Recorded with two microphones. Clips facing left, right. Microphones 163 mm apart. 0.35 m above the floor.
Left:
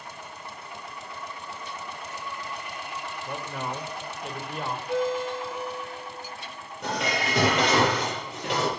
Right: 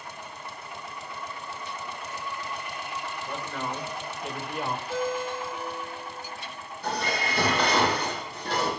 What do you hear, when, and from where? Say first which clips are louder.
3.3 s a man speaking: left 1 dB; 15° left (ahead or behind), 1.4 m; by 4.8 s 10° right (ahead or behind), 1.5 m
4.9 s a ringtone: left 6 dB; 60° left (ahead or behind), 6 m
6.8 s dishes clattering: left 1 dB; 75° left (ahead or behind), 5.5 m